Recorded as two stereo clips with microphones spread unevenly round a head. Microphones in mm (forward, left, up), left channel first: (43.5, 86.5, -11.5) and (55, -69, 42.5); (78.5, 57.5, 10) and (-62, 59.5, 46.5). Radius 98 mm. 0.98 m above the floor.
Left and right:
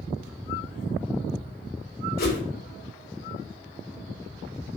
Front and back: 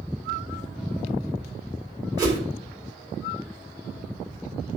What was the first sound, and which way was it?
A whoosh, 110° left.